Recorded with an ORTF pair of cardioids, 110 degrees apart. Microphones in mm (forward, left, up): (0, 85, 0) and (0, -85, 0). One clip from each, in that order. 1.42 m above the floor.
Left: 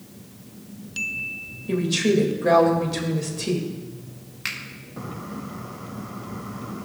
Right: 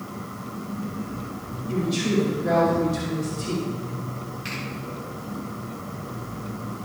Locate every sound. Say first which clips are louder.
1.7 s a woman speaking: left 4 dB; 55° left, 2.5 m
4.5 s a finger snap: left 5 dB; 60° left, 2 m